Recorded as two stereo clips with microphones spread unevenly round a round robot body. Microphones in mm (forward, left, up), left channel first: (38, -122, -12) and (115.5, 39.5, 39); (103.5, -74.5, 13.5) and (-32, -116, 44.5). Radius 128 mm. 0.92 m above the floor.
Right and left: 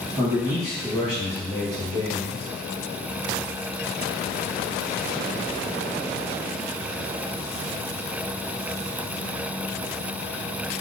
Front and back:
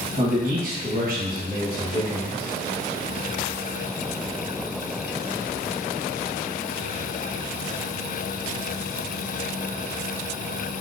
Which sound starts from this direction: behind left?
A man speaking, at 0.2 s.